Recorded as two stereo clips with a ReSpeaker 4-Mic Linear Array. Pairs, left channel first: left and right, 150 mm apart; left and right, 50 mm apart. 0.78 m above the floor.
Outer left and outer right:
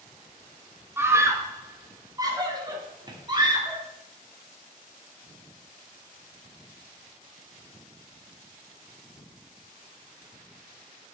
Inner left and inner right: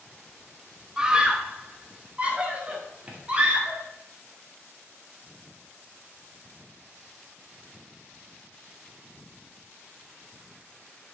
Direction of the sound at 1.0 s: 15° right (ahead or behind).